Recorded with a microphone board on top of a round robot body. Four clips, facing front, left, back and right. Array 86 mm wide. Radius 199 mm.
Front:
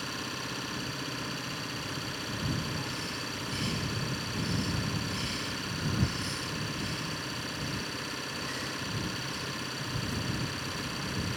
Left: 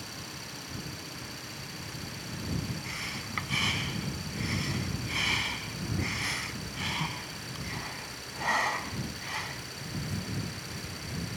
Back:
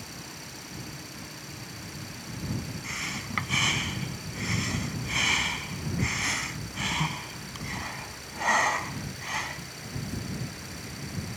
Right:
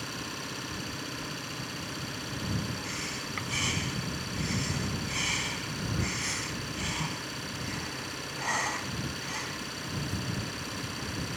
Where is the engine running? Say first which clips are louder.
Right 5 dB, front 6 dB; 35° right.